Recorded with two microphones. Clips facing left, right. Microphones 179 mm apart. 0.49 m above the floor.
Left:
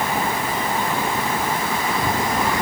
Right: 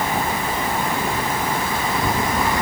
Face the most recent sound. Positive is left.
No sound to turn to.